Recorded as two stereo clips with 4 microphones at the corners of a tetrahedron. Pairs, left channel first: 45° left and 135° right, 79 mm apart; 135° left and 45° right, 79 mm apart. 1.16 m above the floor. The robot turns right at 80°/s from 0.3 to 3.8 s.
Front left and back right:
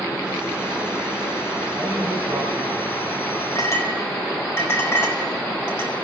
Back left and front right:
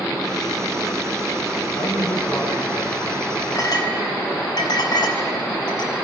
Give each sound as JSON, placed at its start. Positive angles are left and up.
{"t": 1.8, "sound": "a man speaking", "azimuth_deg": 140, "distance_m": 6.5}
{"t": 3.5, "sound": "a clink", "azimuth_deg": 85, "distance_m": 4.5}